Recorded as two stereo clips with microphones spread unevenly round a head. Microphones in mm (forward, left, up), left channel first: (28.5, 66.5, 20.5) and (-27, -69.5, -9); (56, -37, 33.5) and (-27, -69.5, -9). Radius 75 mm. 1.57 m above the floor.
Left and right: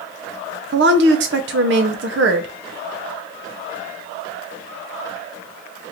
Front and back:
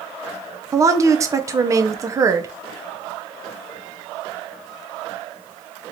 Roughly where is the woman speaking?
Right.